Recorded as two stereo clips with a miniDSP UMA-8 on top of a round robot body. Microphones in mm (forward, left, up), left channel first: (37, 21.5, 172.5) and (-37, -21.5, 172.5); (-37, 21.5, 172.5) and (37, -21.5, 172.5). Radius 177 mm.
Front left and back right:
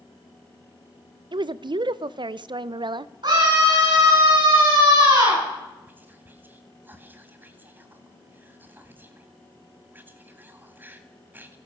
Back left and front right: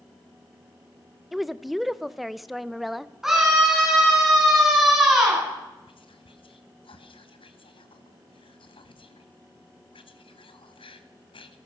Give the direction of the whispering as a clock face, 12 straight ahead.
7 o'clock.